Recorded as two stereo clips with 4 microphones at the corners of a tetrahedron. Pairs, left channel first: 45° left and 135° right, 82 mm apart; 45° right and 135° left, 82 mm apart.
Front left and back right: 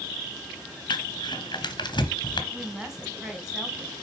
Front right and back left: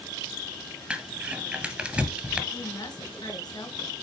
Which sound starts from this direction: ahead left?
Crumpling, at 0.9 s.